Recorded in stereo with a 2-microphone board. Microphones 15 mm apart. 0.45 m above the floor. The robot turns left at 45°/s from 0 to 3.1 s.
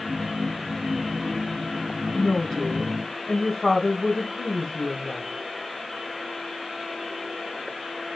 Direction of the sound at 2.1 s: 75° left.